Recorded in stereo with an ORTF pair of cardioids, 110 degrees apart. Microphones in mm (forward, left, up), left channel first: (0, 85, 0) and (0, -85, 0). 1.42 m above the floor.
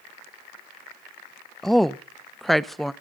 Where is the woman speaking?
Straight ahead, 0.9 m.